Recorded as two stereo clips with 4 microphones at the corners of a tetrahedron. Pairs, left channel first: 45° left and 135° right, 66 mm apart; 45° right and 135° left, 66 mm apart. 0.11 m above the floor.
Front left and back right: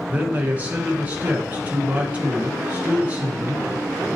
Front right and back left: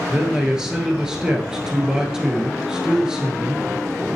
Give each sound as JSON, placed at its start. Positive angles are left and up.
{"t": 0.1, "sound": "a man speaking", "azimuth_deg": -165, "distance_m": 1.3}